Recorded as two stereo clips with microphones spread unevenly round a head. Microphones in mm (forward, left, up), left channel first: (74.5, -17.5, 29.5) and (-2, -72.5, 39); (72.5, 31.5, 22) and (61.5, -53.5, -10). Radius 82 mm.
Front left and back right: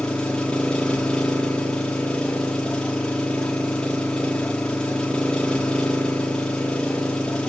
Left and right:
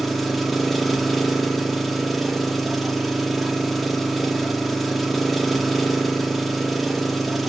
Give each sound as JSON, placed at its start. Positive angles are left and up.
{"t": 0.0, "sound": "an engine running", "azimuth_deg": 125, "distance_m": 1.0}